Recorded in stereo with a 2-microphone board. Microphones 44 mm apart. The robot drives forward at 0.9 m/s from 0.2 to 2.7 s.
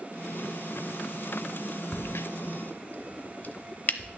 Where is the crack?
55° left (ahead or behind), 0.5 m; by 4.1 s 45° left (ahead or behind), 0.6 m.